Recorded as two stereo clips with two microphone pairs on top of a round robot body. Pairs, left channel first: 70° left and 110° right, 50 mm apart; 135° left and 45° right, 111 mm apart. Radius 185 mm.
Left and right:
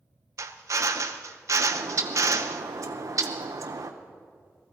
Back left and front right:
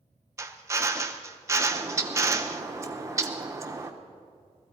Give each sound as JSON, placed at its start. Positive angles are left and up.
{"t": 0.4, "sound": "a drill", "azimuth_deg": -110, "distance_m": 0.8}
{"t": 1.7, "sound": "a bird", "azimuth_deg": -105, "distance_m": 0.8}